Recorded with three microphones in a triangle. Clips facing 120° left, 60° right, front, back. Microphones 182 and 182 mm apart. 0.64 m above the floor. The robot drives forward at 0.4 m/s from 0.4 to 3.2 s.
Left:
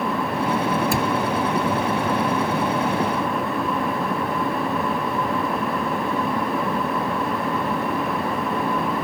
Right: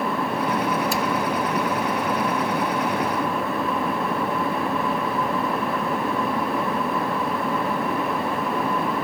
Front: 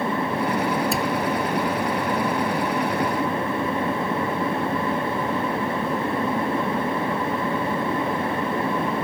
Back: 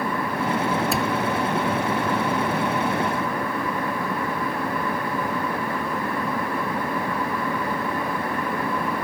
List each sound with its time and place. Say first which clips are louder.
0.9 s a cupboard door: left 2 dB, even; 90° left